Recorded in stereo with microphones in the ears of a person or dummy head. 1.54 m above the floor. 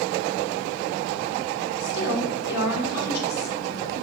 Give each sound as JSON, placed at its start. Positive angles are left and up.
{"t": 1.8, "sound": "a woman speaking", "side_deg": 80, "distance_m": 6.0}